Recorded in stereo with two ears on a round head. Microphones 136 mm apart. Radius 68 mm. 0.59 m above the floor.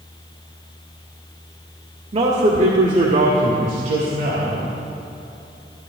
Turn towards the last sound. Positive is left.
turn(degrees=-50)  # may be behind; listen again after turning